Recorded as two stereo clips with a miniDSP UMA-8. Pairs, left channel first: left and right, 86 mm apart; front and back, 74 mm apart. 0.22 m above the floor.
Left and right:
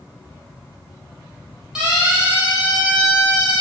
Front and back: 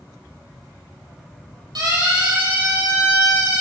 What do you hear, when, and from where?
1.8 s a siren: 170° right, 7.5 m; by 3.6 s 175° right, 8.5 m